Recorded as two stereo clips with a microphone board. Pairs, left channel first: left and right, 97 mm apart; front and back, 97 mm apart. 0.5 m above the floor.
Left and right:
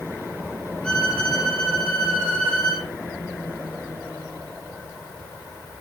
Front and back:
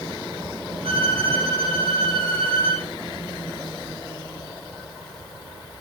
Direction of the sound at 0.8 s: 170° left.